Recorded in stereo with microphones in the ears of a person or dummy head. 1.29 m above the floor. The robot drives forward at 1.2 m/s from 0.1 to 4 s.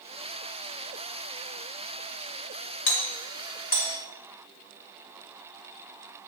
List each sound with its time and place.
2.9 s a doorbell: 55° left (ahead or behind), 1.8 m; by 4.0 s 45° left (ahead or behind), 2 m